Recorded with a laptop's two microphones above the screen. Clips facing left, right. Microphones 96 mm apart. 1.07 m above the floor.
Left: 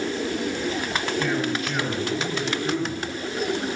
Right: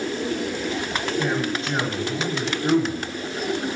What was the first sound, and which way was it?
A man speaking, 20° right (ahead or behind).